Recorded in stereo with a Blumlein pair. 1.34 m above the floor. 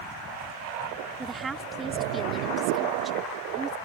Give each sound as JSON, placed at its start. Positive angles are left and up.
{"t": 1.2, "sound": "a woman speaking", "azimuth_deg": -15}